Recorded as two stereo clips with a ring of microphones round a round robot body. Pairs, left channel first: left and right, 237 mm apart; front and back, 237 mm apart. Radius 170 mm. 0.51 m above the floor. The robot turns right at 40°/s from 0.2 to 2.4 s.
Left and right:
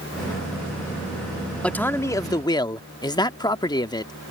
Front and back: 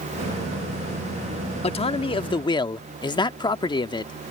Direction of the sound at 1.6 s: 10° left.